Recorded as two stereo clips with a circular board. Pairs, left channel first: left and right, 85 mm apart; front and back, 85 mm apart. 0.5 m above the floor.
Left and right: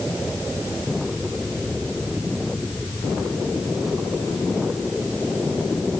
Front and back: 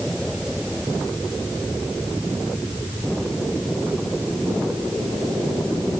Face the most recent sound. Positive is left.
No sound to turn to.